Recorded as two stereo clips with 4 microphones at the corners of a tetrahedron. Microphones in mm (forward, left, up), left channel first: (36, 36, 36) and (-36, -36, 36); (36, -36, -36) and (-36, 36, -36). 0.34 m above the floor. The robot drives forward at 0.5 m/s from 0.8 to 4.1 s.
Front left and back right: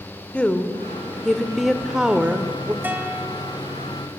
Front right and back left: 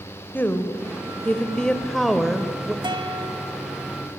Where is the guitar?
155° left, 1.6 m; by 3.7 s 160° left, 1.9 m.